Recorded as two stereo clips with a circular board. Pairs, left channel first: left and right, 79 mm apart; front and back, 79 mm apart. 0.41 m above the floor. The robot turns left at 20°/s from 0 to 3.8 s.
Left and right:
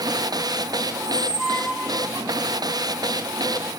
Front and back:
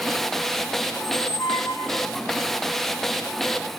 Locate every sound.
1.0 s a squeak: 15° left, 1.8 m; by 2.1 s 10° right, 1.8 m